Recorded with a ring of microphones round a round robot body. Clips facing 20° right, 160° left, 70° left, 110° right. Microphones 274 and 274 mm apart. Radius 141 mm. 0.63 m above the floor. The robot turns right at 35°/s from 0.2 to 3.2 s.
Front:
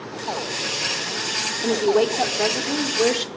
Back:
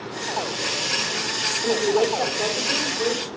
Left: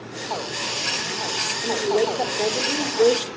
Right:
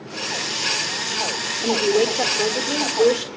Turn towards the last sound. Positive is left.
turn(degrees=-15)